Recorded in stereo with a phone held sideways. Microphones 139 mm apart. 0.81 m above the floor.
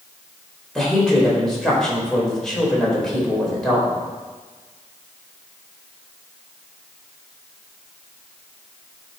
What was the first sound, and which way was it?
A woman speaking, 5° left (ahead or behind).